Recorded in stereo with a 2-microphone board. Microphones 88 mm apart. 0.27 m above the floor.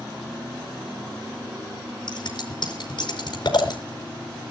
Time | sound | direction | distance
2.1 | scissors | 60° left (ahead or behind) | 4.5 m